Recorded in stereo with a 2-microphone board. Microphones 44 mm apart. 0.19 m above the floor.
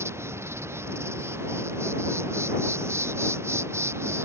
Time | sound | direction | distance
0.0 | an insect | 90° right | ?